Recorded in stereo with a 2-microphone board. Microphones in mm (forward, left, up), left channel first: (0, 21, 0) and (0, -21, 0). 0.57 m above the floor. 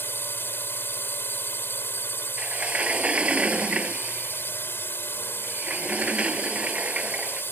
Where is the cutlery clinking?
I don't hear cutlery clinking.